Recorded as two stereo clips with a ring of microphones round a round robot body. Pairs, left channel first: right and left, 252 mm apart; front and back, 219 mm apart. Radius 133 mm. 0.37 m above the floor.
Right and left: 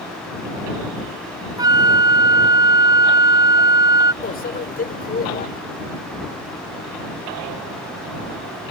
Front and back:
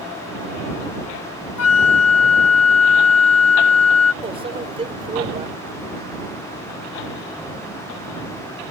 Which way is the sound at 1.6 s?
15° left.